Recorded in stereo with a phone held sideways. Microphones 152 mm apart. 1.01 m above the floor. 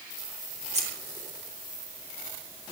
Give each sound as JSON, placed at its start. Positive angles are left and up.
{"t": 0.7, "sound": "scissors", "side_deg": -50, "distance_m": 7.5}